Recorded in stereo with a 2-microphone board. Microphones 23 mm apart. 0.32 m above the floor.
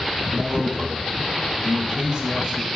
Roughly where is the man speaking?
Right.